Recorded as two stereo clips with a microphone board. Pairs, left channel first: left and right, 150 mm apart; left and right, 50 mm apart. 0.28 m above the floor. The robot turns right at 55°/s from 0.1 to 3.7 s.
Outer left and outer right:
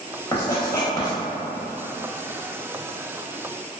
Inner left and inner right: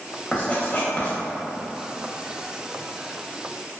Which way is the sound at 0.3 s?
25° left (ahead or behind).